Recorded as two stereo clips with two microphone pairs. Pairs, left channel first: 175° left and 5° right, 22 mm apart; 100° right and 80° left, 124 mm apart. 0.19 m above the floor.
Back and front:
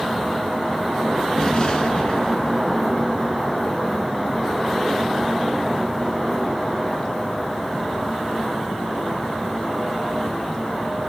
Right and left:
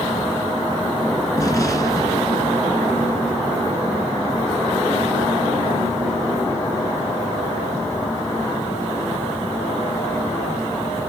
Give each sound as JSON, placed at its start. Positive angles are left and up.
{"t": 1.4, "sound": "an explosion", "azimuth_deg": -155, "distance_m": 2.0}